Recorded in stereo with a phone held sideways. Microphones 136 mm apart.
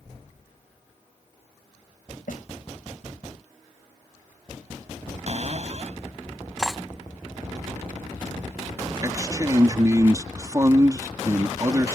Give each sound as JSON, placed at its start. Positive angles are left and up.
{"t": 2.3, "sound": "a snare drum", "side_deg": 75}
{"t": 5.3, "sound": "a cupboard door", "side_deg": -50}
{"t": 6.6, "sound": "cutlery clinking", "side_deg": 5}
{"t": 9.0, "sound": "a man speaking", "side_deg": -25}